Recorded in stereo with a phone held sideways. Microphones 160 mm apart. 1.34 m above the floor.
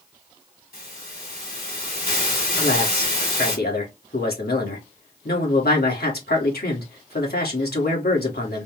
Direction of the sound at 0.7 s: 65° left (ahead or behind).